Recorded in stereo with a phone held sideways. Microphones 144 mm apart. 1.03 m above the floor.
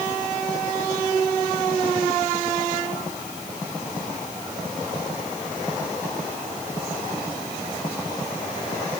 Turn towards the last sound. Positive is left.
No sound to turn to.